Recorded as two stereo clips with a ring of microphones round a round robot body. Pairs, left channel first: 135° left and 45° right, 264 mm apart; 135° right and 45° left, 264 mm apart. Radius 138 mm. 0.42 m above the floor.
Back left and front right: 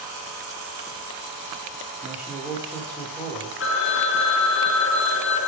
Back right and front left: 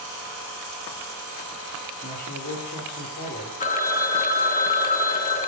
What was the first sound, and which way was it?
A man speaking, 125° right.